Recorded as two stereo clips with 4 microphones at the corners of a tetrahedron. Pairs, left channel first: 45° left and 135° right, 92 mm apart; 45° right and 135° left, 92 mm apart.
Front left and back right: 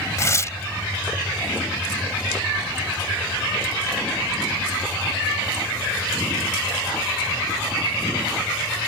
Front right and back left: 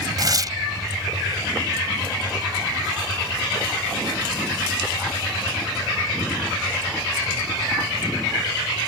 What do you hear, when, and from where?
0.2 s tearing paper: 95° left